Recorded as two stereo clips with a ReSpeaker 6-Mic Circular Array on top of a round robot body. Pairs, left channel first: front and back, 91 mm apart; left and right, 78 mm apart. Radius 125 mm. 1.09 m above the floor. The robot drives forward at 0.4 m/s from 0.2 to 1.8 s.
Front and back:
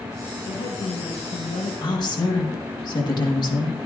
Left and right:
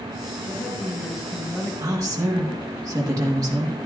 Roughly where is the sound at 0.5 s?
Ahead.